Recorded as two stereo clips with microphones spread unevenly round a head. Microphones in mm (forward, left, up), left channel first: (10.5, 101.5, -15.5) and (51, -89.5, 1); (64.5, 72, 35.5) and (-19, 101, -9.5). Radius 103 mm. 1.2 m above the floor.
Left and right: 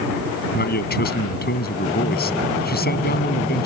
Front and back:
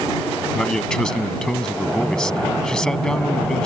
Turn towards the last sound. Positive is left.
turn(degrees=60)